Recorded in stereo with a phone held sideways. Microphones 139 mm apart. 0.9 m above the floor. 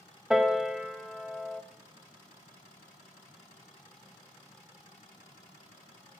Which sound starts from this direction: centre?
A piano, at 0.3 s.